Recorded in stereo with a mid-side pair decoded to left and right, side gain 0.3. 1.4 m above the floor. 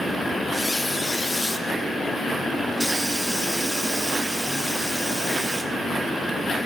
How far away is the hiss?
About 2.5 m.